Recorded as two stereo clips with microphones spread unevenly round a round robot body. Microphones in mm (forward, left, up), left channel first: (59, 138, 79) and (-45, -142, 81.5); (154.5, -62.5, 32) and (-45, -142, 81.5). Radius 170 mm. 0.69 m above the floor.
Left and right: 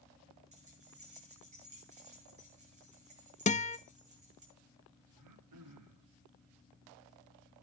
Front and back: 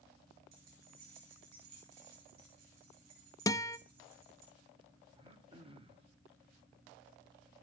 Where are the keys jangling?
Straight behind, 8.5 m.